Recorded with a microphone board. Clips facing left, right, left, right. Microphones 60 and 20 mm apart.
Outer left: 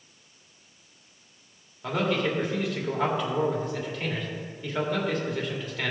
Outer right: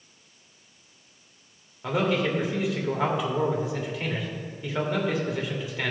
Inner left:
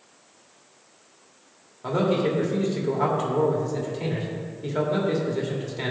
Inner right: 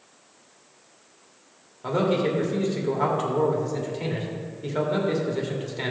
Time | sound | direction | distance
1.8 | a man speaking | 5° right (ahead or behind) | 1.7 m